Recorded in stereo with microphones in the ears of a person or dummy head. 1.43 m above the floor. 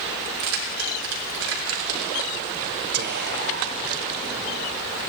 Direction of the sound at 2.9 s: 50° right (ahead or behind).